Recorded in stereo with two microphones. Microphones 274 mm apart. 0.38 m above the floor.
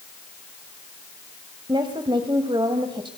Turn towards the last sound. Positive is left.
turn(degrees=-15)  # may be behind; listen again after turning